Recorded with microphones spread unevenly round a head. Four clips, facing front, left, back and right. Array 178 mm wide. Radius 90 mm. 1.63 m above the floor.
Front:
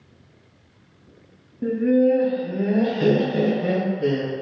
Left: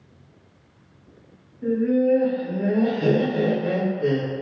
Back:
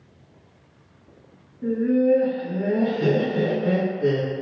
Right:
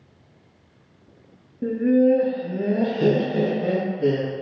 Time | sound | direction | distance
1.6 | laughter | 60° right | 0.5 m